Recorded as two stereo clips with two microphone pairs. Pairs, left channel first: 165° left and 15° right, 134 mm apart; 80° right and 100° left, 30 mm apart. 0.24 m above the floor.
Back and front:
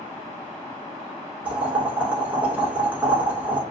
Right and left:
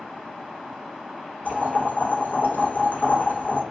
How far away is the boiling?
About 0.9 m.